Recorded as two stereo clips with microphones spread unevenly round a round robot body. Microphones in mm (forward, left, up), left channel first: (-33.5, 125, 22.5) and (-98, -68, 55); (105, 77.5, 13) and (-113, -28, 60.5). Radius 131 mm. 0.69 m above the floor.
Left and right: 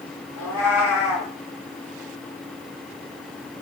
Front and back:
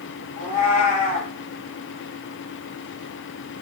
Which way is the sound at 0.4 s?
45° left.